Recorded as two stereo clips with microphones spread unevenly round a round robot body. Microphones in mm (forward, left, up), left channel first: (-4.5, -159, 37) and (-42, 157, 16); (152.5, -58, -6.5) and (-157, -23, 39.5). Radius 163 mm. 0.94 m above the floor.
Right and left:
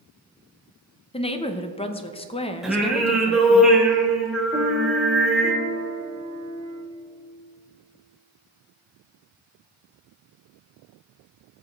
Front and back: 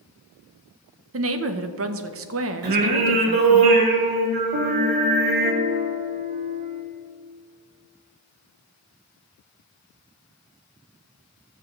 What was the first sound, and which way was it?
A woman speaking, 150° right.